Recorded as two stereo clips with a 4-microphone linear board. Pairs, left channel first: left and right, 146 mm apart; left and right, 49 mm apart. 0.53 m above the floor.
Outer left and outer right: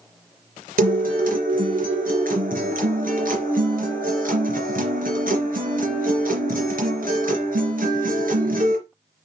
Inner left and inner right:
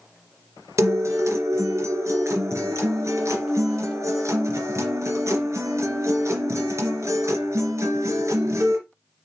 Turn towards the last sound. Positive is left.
turn(degrees=-85)